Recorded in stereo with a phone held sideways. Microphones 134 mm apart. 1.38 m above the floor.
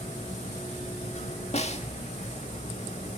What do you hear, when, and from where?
0.0 s a machine running: 60° left (ahead or behind), 4.5 m
1.5 s a snare drum: 55° left (ahead or behind), 1.8 m